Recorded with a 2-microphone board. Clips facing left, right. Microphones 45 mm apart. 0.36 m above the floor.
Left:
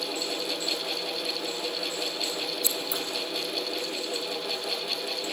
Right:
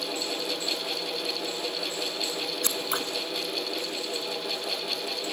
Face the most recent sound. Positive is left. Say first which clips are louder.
# right 2 dB
turn(degrees=-80)